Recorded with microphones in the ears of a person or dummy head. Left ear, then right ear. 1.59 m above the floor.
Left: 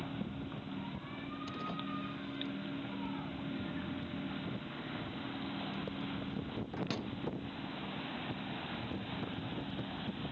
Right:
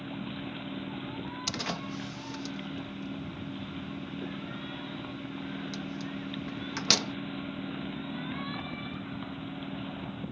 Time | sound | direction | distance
1.5 | a door slam | 60° right (ahead or behind) | ?